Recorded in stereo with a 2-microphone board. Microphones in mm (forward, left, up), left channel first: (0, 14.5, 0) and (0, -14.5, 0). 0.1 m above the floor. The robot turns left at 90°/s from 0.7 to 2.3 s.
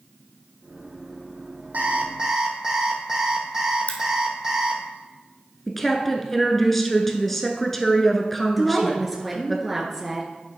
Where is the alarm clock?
105° right, 1.9 m; by 4.8 s 160° right, 1.9 m.